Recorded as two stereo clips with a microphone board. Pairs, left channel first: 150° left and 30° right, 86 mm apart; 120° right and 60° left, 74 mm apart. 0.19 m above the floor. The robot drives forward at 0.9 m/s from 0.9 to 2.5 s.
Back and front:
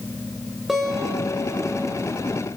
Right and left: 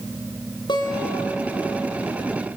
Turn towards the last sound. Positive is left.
turn(degrees=-125)